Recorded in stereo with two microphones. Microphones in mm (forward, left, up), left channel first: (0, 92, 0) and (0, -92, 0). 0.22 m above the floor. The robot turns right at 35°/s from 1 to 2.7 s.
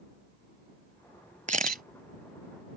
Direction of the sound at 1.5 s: 45° right (ahead or behind).